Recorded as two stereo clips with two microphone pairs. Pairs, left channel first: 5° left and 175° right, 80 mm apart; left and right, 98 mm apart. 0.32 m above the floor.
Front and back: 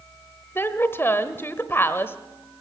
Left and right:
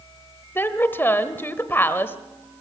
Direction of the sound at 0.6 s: 35° left.